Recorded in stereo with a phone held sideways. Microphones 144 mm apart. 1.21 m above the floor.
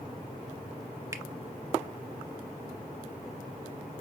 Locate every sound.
1.1 s a finger snap: 20° right (ahead or behind), 0.7 m